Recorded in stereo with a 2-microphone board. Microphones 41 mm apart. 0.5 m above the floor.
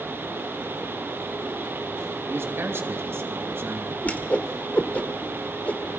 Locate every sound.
2.3 s a man speaking: 70° right (ahead or behind), 3 m
4.0 s a whoosh: 35° left (ahead or behind), 1.6 m